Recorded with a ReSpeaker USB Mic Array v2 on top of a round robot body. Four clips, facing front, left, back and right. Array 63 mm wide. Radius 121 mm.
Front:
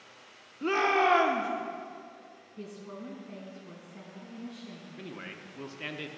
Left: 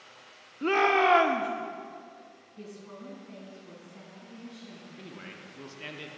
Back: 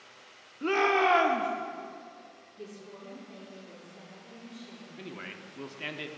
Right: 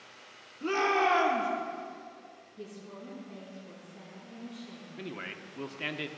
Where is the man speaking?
100° right, 1.1 m.